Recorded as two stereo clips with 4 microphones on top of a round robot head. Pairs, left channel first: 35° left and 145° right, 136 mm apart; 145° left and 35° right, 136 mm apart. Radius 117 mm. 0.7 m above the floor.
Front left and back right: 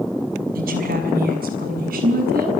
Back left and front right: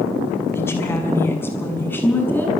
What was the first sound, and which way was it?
A woman speaking, 140° right.